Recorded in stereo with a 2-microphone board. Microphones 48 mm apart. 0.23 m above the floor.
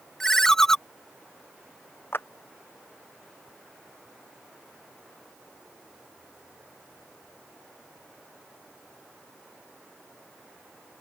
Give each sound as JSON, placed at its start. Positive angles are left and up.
{"t": 0.2, "sound": "a ringtone", "side_deg": 10}
{"t": 2.1, "sound": "a clap", "side_deg": 50}